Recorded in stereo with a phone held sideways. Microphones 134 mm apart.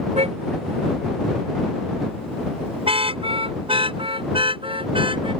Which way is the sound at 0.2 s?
60° right (ahead or behind).